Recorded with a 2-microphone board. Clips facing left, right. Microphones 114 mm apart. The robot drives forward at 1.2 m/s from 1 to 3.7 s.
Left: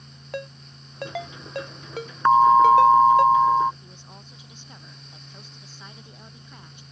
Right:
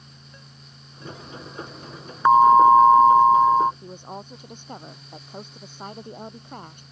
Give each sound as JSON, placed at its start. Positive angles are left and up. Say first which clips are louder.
{"t": 0.3, "sound": "a ringtone", "louder": "left 15 dB", "side_deg": 85}
{"t": 2.2, "sound": "an alarm", "louder": "right 2 dB", "side_deg": -10}
{"t": 3.8, "sound": "a woman speaking", "louder": "right 10 dB", "side_deg": -50}